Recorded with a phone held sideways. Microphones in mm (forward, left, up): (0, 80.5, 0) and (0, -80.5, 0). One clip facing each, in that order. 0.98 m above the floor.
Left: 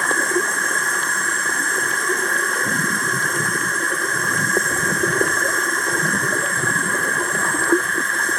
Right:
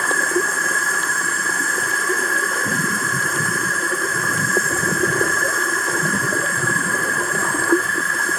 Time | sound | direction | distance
0.0 | an insect | 5° right (ahead or behind) | 1.1 m